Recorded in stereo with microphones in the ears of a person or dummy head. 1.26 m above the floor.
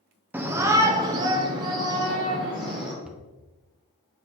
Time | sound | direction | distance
0.3 | a shout | 10° right (ahead or behind) | 0.7 m
3.0 | a cupboard door | 5° right (ahead or behind) | 0.7 m